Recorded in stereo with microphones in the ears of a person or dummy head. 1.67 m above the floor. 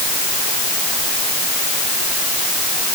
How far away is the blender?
No blender in this recording.